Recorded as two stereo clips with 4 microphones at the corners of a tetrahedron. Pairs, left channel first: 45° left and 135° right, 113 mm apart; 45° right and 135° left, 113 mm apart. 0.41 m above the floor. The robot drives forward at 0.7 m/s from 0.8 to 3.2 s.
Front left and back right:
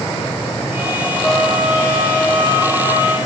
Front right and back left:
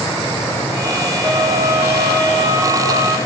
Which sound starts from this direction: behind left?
A trumpet, at 1.2 s.